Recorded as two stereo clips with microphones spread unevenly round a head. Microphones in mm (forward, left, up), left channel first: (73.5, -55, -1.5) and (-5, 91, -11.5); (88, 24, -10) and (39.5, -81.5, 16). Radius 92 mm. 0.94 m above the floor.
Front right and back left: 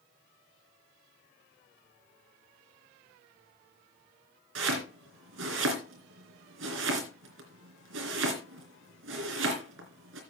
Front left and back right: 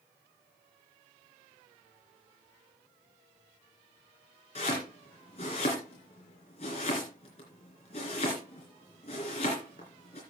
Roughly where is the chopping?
Behind left.